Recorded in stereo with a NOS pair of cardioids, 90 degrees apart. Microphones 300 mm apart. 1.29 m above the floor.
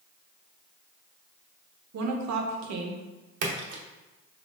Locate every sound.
1.9 s a woman speaking: 65° right, 0.8 m
3.4 s a splash: 55° right, 0.8 m